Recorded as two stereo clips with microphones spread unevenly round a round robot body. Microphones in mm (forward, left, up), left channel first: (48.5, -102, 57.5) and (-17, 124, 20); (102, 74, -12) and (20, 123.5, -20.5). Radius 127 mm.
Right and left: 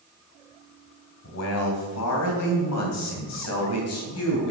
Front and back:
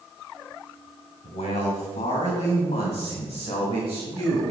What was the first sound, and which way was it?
A man speaking, 50° right.